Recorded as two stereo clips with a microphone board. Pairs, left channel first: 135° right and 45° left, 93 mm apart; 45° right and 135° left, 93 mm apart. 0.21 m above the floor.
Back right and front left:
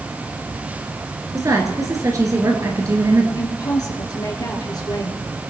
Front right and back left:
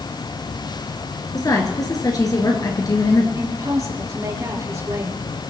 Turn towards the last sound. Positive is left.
turn(degrees=-175)